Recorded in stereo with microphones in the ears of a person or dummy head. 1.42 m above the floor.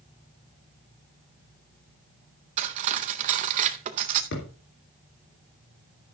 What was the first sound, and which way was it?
Cutlery clinking, 35° right (ahead or behind).